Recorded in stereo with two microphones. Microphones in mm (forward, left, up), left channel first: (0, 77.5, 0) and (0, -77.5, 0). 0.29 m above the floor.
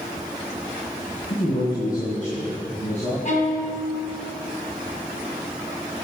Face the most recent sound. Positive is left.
turn(degrees=55)  # may be behind; listen again after turning